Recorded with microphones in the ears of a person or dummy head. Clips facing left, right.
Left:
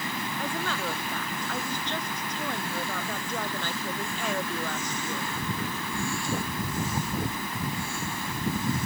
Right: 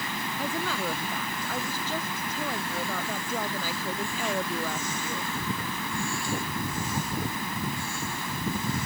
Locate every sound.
0.4 s a woman speaking: 5° right (ahead or behind)